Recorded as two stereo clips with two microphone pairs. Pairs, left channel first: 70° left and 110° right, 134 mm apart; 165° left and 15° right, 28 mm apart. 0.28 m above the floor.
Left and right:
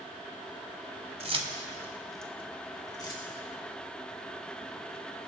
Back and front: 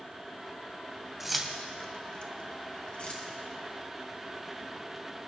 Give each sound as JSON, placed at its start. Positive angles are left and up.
{"t": 1.2, "sound": "keys jangling", "azimuth_deg": -100, "distance_m": 1.2}